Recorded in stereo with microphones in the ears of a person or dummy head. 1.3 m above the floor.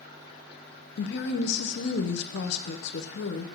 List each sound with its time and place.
1.0 s a woman speaking: 55° left (ahead or behind), 0.7 m